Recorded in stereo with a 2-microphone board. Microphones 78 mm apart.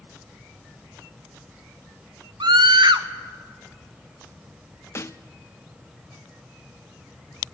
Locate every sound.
2.4 s a scream: 75° right (ahead or behind), 1.1 m
5.0 s a snare drum: 35° left (ahead or behind), 0.6 m